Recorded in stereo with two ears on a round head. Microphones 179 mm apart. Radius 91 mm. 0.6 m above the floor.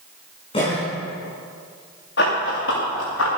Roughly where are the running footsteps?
Left.